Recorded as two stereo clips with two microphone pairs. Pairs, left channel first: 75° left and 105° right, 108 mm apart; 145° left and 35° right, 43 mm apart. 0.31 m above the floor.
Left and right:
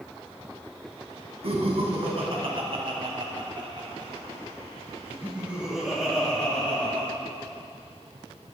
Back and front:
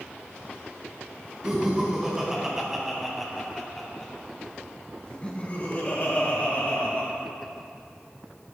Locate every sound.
1.4 s laughter: 100° right, 2.5 m; by 7.1 s 145° left, 1.9 m